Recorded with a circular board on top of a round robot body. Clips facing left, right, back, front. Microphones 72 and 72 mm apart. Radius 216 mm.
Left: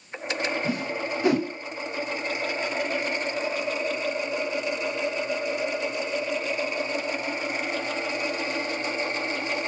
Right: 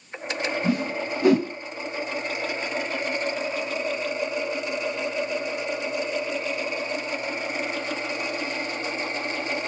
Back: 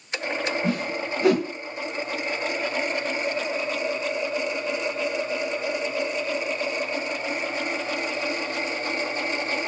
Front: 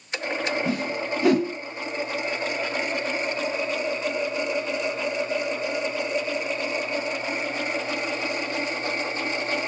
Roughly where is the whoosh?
Behind right.